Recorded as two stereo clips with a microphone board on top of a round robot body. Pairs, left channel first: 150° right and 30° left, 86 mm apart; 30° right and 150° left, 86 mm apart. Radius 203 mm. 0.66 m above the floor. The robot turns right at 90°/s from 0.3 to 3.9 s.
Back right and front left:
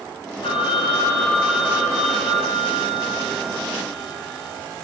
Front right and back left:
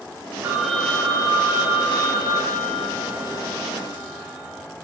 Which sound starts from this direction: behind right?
A phone ringing, at 0.4 s.